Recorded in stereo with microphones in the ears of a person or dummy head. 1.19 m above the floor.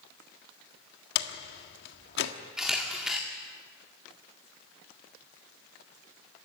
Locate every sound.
1.1 s a door slam: 65° left (ahead or behind), 1.5 m
2.6 s a camera shutter: 5° right (ahead or behind), 1.9 m